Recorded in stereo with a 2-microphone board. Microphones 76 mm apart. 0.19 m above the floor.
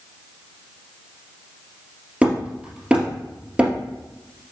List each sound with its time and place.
2.2 s hammering: 15° right (ahead or behind), 2.5 m